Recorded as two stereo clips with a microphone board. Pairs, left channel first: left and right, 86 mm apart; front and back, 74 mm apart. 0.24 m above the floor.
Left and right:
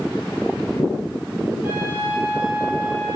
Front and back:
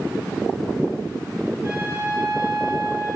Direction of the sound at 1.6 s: 120° left.